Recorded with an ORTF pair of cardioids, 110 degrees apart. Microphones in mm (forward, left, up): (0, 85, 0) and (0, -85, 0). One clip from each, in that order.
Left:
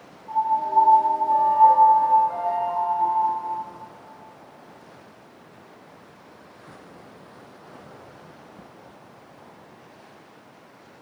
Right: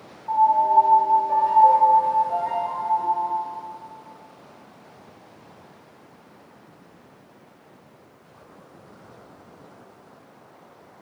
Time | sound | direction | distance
0.3 | a piano | 25° right | 1.0 m